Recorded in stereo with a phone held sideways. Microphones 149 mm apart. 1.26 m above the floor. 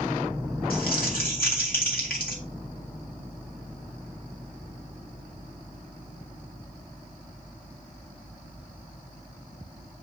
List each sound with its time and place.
0.7 s crumpling: 85° left, 2 m